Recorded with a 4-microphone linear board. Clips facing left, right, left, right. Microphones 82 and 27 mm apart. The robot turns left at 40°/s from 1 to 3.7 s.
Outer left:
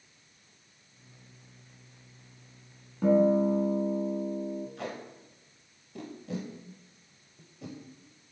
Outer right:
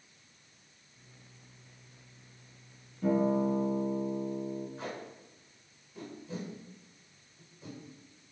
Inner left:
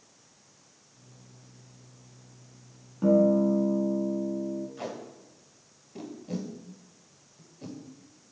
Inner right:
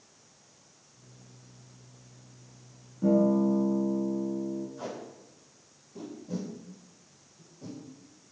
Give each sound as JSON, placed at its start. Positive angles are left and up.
{"t": 3.0, "sound": "a guitar", "side_deg": 75, "distance_m": 1.0}
{"t": 4.8, "sound": "tape being pulled", "side_deg": 80, "distance_m": 1.1}